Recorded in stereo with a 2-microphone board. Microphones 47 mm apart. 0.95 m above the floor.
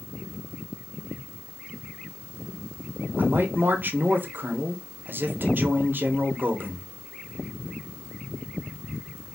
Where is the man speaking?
45° right (ahead or behind), 0.8 m.